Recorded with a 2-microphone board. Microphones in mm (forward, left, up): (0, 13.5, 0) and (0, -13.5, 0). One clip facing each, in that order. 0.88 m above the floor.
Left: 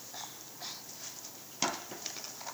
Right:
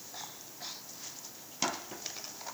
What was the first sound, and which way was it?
Only background noise.